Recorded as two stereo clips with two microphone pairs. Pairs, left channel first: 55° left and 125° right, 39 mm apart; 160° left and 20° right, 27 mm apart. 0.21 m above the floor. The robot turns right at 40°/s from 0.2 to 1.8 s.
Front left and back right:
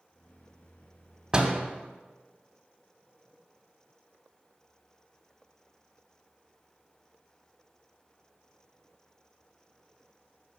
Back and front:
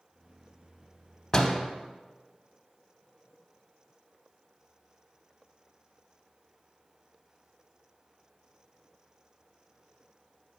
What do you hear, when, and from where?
1.3 s a door slam: 160° right, 0.7 m; by 1.7 s 150° right, 0.7 m